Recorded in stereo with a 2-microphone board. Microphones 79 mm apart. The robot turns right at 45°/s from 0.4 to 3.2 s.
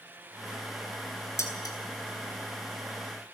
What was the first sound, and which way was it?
Dishes clattering, 35° left (ahead or behind).